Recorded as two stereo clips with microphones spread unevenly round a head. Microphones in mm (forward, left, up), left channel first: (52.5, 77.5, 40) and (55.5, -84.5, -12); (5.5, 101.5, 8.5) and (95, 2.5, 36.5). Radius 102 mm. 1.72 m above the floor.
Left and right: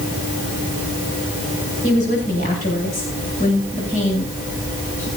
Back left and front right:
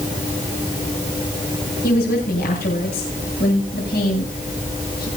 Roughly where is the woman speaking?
Behind left.